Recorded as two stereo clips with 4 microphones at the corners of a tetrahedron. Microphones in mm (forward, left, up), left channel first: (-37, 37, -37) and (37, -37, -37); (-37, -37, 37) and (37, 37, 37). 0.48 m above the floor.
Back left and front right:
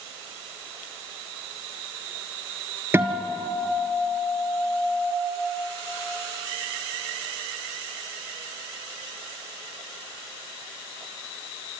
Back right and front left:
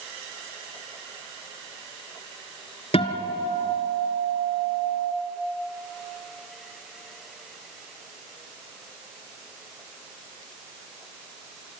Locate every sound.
2.9 s a guitar: 115° right, 1.3 m